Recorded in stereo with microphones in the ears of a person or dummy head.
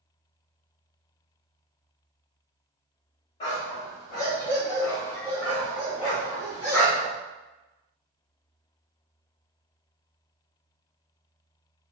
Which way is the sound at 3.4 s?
20° left (ahead or behind).